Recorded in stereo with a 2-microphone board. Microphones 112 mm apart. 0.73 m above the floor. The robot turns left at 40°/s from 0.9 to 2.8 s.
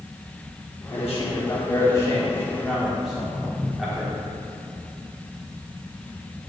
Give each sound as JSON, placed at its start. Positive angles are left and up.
{"t": 0.9, "sound": "a man speaking", "side_deg": 65, "distance_m": 1.3}
{"t": 3.0, "sound": "footsteps", "side_deg": -15, "distance_m": 1.6}